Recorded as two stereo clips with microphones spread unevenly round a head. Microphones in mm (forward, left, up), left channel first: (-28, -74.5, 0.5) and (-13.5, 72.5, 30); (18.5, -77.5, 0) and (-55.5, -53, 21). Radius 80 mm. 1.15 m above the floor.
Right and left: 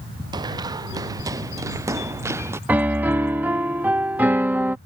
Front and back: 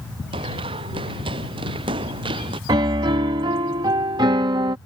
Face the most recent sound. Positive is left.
turn(degrees=160)